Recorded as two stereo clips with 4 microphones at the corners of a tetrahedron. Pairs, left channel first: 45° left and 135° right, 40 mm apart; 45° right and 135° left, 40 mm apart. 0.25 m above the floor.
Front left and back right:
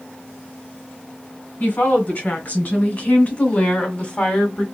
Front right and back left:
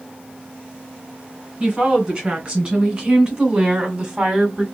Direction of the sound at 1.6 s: 65° left.